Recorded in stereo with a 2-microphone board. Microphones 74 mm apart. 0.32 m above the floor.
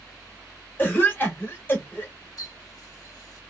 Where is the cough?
30° left (ahead or behind), 1.1 m.